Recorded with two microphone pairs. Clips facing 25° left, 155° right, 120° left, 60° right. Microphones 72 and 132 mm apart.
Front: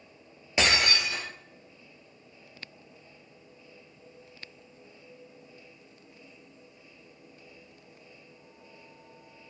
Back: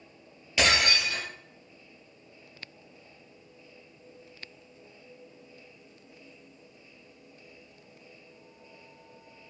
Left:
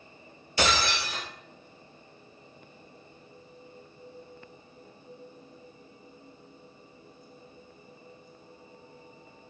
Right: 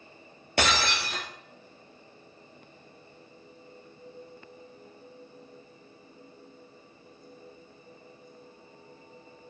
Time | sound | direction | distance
0.6 | breaking glass | 40° right | 1.9 m